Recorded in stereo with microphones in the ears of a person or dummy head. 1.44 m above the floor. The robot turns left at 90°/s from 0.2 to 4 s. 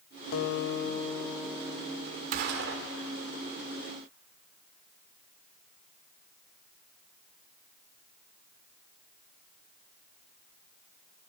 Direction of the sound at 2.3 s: 55° right.